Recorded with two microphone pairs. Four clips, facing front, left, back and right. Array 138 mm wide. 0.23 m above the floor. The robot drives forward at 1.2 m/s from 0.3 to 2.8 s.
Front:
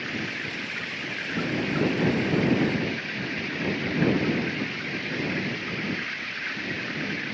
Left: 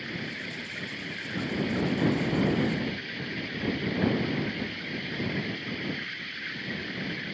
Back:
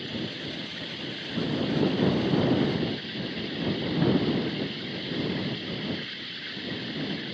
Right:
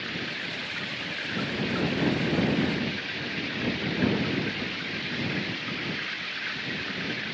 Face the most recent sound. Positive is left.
turn(degrees=-45)